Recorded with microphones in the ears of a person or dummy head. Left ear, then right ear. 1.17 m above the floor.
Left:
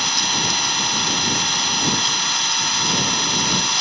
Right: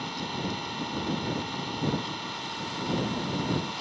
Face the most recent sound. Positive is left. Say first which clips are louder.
# left 15 dB
turn(degrees=65)  # may be behind; listen again after turning